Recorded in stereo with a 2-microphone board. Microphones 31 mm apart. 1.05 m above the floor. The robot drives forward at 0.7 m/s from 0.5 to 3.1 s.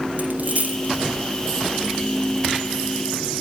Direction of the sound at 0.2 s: 55° right (ahead or behind).